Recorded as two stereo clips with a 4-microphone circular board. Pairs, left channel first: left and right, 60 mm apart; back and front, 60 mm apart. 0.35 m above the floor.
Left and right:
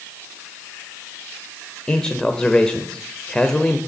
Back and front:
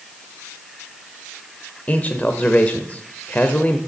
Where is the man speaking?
150° left, 1.0 m.